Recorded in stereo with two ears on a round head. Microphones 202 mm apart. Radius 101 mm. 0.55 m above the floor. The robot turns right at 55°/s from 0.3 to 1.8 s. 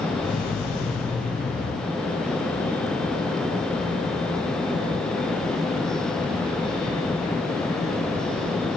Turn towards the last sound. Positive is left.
No sound to turn to.